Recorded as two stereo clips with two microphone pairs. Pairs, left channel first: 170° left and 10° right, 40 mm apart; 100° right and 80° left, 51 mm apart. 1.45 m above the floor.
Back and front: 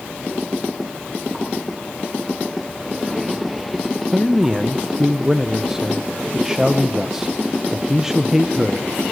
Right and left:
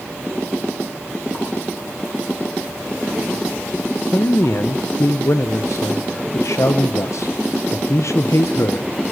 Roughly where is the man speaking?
Right.